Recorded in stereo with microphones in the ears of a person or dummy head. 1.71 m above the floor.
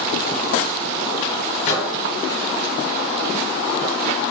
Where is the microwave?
65° left (ahead or behind), 1.6 m.